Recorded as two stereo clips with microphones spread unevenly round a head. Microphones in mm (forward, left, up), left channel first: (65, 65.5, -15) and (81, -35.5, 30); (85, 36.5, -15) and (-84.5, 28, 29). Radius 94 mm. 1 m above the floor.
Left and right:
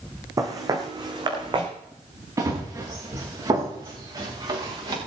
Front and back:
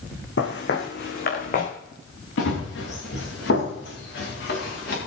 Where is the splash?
I don't hear a splash.